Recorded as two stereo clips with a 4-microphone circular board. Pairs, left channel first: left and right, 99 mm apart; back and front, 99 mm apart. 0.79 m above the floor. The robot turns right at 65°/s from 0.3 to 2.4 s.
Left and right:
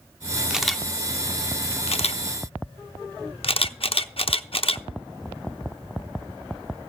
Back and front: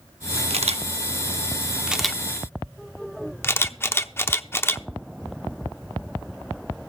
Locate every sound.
0.5 s a camera shutter: 10° right, 0.8 m; by 4.9 s 115° left, 0.8 m